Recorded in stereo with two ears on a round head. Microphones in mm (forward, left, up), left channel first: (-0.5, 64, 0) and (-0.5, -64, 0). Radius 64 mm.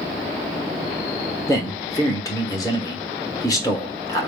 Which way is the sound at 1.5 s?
25° left (ahead or behind).